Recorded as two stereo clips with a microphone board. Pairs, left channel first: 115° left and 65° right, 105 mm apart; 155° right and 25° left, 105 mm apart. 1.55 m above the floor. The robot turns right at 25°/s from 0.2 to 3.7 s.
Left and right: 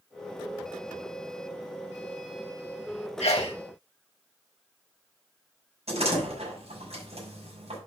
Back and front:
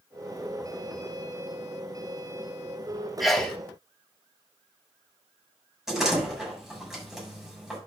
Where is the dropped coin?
I don't hear a dropped coin.